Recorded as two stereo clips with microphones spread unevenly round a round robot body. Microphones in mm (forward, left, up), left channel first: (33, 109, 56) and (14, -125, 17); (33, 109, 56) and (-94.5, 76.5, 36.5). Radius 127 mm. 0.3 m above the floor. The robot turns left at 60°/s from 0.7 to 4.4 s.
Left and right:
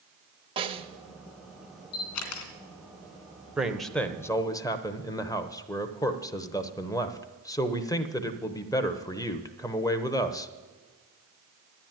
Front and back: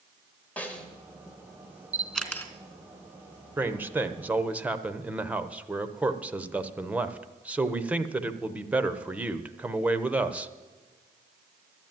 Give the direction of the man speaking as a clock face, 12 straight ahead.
5 o'clock.